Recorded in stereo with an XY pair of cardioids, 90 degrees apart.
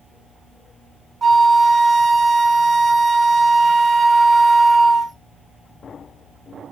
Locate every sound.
1.2 s a flute: 30° right, 0.7 m